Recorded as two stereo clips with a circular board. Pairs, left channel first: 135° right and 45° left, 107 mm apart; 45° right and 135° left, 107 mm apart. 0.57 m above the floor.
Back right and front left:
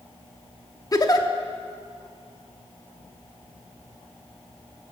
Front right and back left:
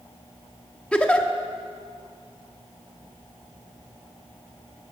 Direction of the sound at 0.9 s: 115° right.